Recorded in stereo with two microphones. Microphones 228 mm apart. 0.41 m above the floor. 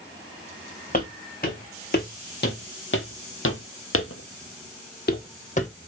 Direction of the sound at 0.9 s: 35° left (ahead or behind).